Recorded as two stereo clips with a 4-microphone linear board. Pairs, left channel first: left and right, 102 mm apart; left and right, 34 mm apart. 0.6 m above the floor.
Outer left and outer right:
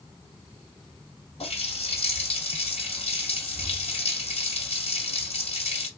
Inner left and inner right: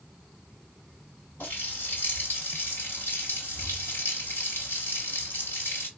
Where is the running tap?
75° left (ahead or behind), 1.9 m.